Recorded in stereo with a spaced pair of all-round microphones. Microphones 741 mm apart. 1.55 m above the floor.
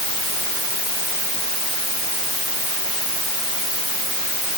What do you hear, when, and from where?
Only background noise.